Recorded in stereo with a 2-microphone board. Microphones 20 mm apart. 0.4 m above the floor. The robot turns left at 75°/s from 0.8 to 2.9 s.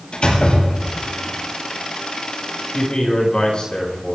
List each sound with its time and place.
0.1 s a door slam: 50° left (ahead or behind), 7.5 m; by 1.1 s 30° left (ahead or behind), 7.5 m
2.7 s a man speaking: 35° left (ahead or behind), 6 m; by 4.2 s 45° left (ahead or behind), 6 m